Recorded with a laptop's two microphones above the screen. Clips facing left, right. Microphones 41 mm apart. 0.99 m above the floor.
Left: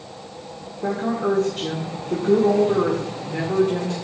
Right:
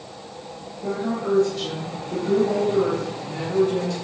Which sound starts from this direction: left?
A woman speaking, at 0.8 s.